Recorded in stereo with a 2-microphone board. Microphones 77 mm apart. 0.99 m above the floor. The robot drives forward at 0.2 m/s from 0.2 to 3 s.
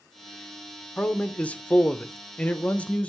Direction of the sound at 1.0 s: 15° left (ahead or behind).